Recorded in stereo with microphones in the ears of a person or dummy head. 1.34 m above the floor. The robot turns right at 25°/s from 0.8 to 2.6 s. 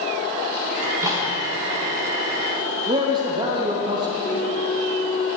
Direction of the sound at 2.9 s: 25° right (ahead or behind).